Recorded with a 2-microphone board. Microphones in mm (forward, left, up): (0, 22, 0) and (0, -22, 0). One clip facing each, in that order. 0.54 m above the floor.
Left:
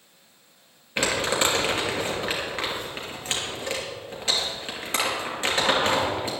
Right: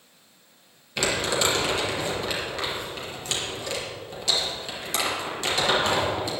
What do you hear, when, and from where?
1.0 s crumpling: 30° left (ahead or behind), 3 m